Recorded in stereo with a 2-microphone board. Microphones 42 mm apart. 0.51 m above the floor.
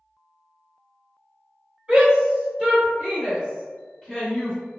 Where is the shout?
30° right (ahead or behind), 1.7 m; by 4.6 s 20° left (ahead or behind), 1.3 m.